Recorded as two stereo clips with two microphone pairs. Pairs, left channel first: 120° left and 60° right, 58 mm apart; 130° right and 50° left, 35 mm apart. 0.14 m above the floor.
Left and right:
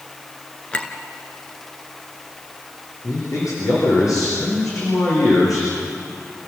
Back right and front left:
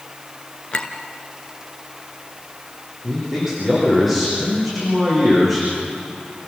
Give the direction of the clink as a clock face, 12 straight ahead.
6 o'clock.